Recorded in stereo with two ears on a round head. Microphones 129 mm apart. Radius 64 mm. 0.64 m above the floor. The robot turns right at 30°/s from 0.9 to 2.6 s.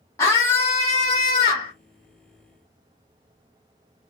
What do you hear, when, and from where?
0.2 s a scream: 20° left (ahead or behind), 0.9 m; by 1.7 s 40° left (ahead or behind), 0.9 m